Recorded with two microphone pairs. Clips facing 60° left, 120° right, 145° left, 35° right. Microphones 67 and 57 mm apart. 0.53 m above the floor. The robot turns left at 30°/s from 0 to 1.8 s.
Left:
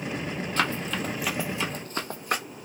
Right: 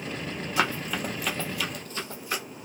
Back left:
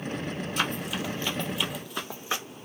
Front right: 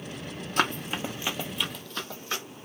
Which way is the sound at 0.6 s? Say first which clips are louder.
Right 1 dB, front right 4 dB; 40° right.